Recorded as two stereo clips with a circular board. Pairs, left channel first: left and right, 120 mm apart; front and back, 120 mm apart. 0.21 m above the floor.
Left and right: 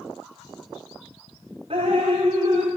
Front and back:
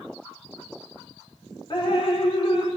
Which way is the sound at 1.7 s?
50° right.